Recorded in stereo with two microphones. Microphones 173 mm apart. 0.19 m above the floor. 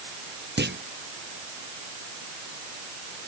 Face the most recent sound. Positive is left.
turn(degrees=-80)